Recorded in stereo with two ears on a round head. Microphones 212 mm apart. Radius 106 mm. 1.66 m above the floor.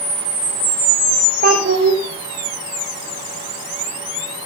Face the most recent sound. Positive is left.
turn(degrees=-45)  # may be behind; listen again after turning